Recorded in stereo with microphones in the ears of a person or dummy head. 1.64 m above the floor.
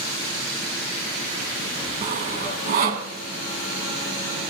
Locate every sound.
2.0 s sawing: 45° right (ahead or behind), 2.5 m